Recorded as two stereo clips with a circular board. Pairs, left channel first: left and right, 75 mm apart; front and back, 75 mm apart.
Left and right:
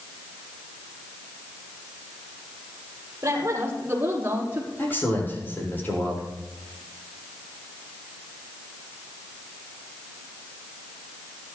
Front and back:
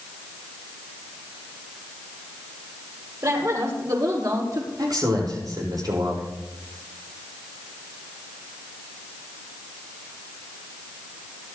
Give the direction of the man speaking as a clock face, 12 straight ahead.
7 o'clock.